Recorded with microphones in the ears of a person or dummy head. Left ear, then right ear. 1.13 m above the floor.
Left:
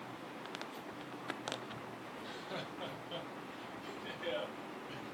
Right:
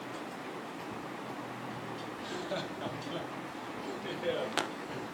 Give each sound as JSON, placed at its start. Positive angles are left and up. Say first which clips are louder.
{"t": 2.2, "sound": "laughter", "louder": "right 6 dB", "side_deg": -10, "distance_m": 0.6}